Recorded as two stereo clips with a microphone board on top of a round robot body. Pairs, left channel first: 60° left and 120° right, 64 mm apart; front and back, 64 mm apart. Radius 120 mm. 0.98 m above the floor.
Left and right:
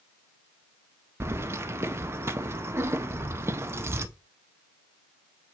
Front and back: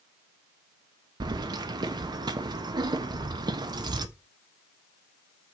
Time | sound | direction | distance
1.2 | keys jangling | 170° right | 0.6 m